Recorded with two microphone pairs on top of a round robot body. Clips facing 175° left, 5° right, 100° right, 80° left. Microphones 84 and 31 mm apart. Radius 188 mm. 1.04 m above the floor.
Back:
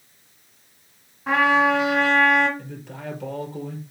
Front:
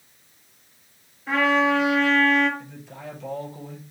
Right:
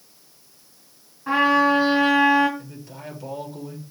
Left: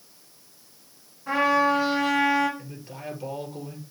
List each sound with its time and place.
1.3 s a trumpet: 160° right, 2.5 m
2.6 s a man speaking: 145° left, 5 m